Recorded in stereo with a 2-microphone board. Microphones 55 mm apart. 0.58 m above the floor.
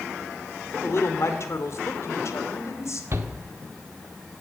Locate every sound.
0.8 s a woman speaking: 55° left (ahead or behind), 2 m; by 3.0 s 60° left (ahead or behind), 2.5 m
3.1 s a shout: 50° right (ahead or behind), 1.6 m